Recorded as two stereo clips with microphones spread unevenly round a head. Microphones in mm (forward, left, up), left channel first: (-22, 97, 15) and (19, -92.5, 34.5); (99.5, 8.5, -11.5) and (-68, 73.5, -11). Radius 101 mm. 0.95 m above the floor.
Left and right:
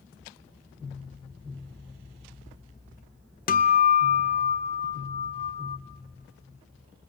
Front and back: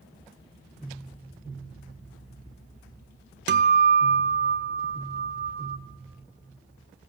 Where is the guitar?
150° left, 0.8 m.